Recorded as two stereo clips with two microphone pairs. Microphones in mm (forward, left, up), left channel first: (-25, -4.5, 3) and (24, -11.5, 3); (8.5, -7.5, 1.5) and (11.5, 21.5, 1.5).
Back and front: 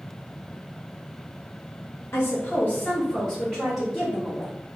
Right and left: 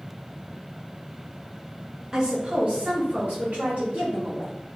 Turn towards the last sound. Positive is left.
turn(degrees=75)